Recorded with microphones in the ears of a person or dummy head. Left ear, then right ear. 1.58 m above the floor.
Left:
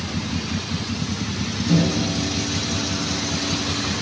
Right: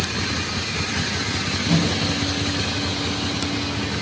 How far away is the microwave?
About 3 m.